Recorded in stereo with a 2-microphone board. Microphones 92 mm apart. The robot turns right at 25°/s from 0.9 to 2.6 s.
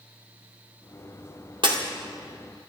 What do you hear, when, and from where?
1.6 s breaking glass: 60° right (ahead or behind), 1.9 m; by 1.8 s 65° right (ahead or behind), 1.9 m